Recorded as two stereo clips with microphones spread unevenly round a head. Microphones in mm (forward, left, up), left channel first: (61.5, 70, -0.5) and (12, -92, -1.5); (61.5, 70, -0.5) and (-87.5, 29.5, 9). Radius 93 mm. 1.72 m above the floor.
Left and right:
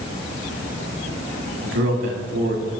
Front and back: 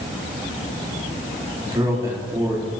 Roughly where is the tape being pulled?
I don't hear tape being pulled.